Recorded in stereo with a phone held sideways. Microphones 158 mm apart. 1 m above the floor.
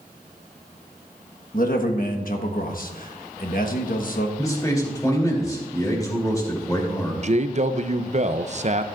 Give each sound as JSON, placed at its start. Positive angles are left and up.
{"t": 1.5, "sound": "a man speaking", "side_deg": 65, "distance_m": 1.3}
{"t": 4.4, "sound": "a man speaking", "side_deg": 20, "distance_m": 3.0}
{"t": 7.2, "sound": "a man speaking", "side_deg": -50, "distance_m": 0.6}